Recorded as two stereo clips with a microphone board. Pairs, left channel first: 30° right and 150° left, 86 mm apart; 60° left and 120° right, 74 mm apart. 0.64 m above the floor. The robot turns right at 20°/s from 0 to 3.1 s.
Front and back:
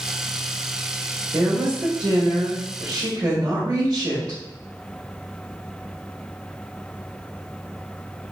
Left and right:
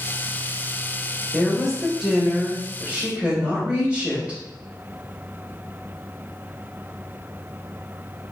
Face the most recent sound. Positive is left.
turn(degrees=170)